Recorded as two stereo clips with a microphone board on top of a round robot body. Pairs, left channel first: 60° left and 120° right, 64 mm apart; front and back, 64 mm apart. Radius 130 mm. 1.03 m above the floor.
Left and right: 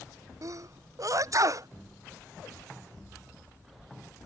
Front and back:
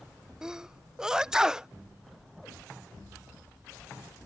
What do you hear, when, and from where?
0.4 s a sneeze: 100° right